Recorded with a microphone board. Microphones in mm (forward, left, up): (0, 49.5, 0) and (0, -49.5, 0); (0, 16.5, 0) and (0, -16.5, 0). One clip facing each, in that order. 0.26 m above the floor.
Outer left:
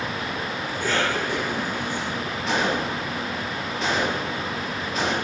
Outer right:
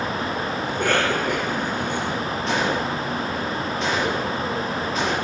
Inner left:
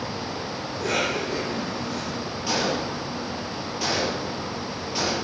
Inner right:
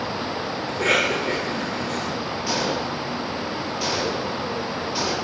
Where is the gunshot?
Centre (ahead or behind), 4.5 m.